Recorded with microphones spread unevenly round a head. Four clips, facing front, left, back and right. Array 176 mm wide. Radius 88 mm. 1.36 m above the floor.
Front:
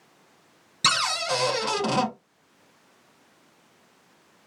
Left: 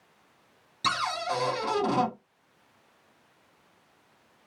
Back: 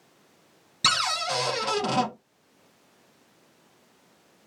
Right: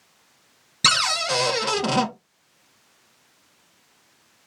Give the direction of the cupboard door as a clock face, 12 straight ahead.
3 o'clock.